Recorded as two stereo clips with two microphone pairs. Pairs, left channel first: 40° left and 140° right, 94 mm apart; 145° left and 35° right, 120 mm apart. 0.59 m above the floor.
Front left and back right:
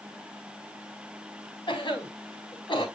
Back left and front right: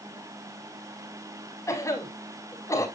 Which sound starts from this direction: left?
A cough, at 1.7 s.